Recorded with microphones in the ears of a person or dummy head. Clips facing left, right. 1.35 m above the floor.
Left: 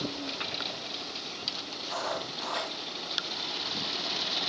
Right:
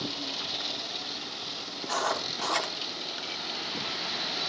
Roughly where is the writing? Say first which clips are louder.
Right 3 dB; right.